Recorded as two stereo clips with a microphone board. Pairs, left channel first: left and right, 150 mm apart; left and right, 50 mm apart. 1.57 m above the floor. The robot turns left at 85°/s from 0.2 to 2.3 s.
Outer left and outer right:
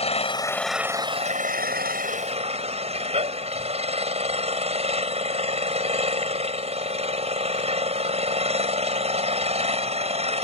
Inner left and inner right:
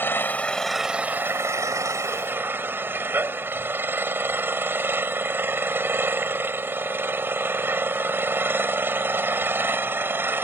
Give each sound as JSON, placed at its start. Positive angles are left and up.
{"t": 0.0, "sound": "an engine running", "azimuth_deg": 45}